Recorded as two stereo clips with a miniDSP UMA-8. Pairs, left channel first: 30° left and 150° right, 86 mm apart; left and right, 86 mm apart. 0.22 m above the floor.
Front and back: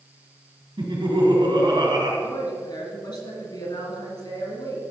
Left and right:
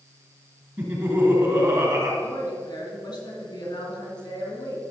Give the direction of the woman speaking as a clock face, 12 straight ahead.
10 o'clock.